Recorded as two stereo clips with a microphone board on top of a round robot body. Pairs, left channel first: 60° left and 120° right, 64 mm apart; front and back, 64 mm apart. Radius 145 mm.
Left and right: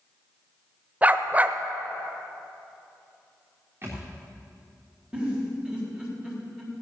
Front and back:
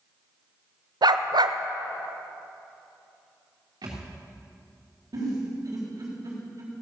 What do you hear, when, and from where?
1.0 s a dog barking: 170° left, 0.6 m
3.8 s a thud: 175° right, 3.5 m
5.1 s a giggle: 165° left, 3.5 m